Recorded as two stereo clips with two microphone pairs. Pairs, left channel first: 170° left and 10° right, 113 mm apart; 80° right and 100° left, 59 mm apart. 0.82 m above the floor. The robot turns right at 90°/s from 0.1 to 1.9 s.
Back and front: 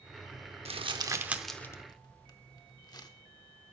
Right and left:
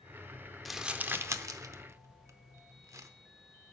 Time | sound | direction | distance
0.7 | crumpling | 5° left | 0.6 m